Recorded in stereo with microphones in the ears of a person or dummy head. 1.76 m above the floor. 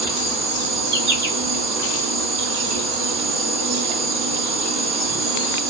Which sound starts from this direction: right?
An insect, at 0.0 s.